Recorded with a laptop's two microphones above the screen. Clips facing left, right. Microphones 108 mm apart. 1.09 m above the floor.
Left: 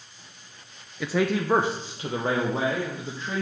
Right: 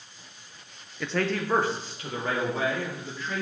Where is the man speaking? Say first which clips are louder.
Left 3 dB; 5° left (ahead or behind), 0.6 m; by 3.4 s 30° left (ahead or behind), 1.8 m.